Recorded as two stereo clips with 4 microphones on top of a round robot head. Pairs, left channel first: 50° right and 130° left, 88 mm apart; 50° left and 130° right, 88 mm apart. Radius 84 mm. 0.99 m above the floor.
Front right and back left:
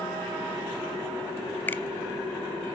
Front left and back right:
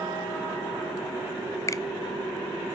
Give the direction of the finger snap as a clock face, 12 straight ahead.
12 o'clock.